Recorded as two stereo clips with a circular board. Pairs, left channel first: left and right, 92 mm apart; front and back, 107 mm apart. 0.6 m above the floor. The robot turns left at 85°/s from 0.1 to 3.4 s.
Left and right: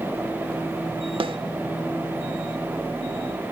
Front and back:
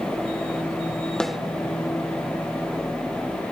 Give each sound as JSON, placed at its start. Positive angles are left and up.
{"t": 1.2, "sound": "a snare drum", "azimuth_deg": -85, "distance_m": 1.1}